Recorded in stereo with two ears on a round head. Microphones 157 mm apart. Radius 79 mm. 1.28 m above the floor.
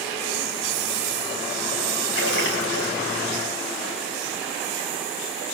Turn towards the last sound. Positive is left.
turn(degrees=80)